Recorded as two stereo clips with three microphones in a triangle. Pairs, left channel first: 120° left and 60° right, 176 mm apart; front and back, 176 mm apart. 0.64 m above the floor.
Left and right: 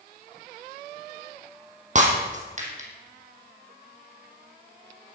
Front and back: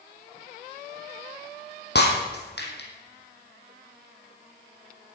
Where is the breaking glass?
15° right, 3 m.